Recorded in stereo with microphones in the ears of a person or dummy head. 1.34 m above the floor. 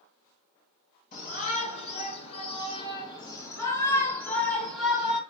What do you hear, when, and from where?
1.1 s a shout: 40° left (ahead or behind), 3 m; by 5.2 s 5° right (ahead or behind), 2 m